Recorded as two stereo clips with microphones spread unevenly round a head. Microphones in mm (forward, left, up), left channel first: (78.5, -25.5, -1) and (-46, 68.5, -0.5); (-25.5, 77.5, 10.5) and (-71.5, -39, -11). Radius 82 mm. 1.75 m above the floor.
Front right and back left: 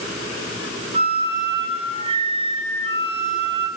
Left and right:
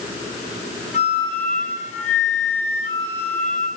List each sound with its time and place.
0.9 s a flute: 90° left, 5.5 m